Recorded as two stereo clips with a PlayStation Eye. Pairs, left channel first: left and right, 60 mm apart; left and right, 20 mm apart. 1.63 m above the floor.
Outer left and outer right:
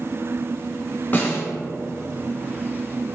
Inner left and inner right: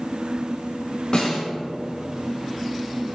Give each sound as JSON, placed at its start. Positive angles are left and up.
{"t": 1.1, "sound": "a snare drum", "side_deg": 30, "distance_m": 1.5}